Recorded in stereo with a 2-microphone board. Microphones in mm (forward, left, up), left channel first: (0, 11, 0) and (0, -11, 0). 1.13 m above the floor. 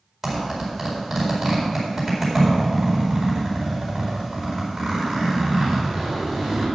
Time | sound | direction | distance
0.2 | a zipper | 10° right (ahead or behind) | 4.5 m